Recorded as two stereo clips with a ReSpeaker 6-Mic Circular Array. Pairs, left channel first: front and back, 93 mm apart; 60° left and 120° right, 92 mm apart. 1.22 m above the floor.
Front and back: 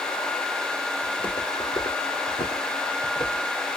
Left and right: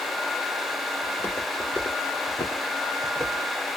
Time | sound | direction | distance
1.0 | footsteps | straight ahead | 2.5 m